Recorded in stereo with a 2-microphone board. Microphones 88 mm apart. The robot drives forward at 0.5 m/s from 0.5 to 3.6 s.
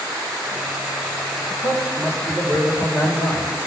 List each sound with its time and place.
1.6 s a man speaking: 25° right (ahead or behind), 1.4 m; by 3.5 s 15° right (ahead or behind), 1.9 m